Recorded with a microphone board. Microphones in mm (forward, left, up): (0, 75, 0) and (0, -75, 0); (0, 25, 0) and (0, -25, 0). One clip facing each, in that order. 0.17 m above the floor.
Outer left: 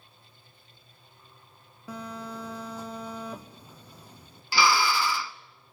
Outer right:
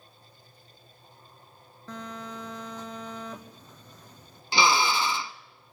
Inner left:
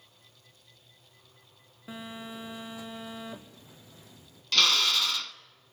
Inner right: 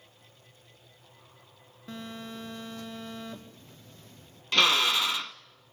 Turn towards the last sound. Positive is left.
turn(degrees=-20)  # may be behind; listen again after turning